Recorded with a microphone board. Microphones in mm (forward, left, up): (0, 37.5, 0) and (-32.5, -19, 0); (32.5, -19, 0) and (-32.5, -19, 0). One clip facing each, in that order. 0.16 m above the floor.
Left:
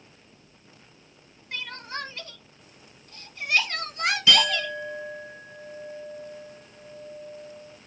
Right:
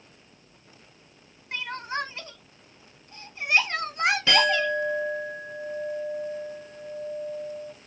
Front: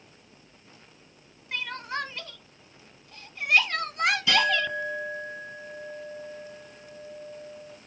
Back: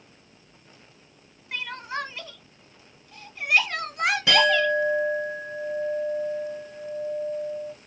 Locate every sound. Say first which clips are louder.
1.5 s crying: right 4 dB, back 1 dB; 100° right, 0.7 m
4.3 s a clink: right 1 dB, back 4 dB; 165° right, 2.5 m